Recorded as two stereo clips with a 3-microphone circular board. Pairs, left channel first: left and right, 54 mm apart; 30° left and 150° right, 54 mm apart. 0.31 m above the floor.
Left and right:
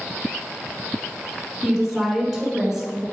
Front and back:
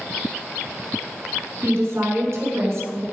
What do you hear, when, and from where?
1.6 s a woman speaking: straight behind, 3 m; by 3.0 s 175° right, 5 m